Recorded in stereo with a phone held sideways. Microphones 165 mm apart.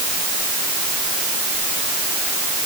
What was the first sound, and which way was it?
Only background noise.